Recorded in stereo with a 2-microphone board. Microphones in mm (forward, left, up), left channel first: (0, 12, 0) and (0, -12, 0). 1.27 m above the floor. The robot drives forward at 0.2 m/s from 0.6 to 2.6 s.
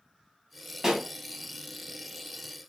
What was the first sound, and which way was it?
A pop, 15° right (ahead or behind).